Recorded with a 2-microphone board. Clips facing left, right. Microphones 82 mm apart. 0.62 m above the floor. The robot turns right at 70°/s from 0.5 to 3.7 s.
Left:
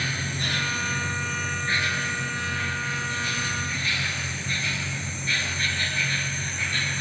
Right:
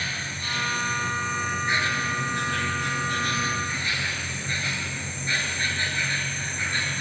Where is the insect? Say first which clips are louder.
Left 2 dB; 110° left, 3.5 m; by 7.0 s 25° right, 3.5 m.